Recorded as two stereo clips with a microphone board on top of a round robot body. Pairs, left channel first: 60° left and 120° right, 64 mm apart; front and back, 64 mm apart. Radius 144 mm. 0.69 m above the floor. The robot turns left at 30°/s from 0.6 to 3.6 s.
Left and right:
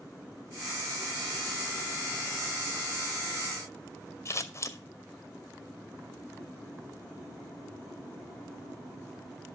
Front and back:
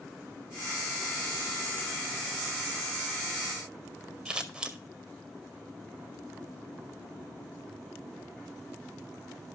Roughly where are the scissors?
Left.